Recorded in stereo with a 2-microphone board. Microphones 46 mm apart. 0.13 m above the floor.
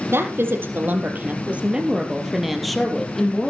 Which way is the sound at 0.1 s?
60° right (ahead or behind).